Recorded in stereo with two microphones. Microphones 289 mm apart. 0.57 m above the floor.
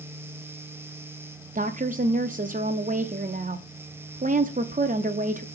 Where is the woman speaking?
30° right (ahead or behind), 0.6 m.